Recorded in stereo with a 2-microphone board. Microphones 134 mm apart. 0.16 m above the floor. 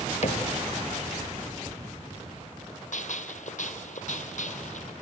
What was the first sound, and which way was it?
A cupboard door, 60° left (ahead or behind).